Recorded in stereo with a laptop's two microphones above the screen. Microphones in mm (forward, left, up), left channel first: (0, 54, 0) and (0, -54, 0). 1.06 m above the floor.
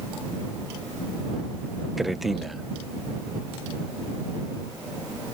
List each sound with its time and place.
2.0 s a man speaking: centre (ahead or behind)